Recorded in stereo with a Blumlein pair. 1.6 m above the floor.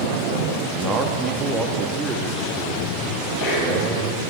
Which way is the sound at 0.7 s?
30° right.